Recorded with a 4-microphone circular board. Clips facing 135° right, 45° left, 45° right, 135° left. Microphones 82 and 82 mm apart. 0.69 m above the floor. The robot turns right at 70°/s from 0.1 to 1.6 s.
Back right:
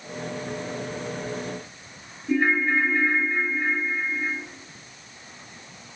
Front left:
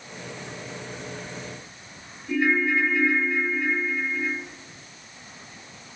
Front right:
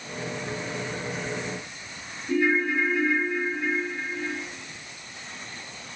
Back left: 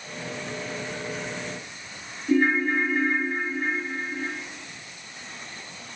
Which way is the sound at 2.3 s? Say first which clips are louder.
Back right 1 dB, back left 2 dB; 170° left.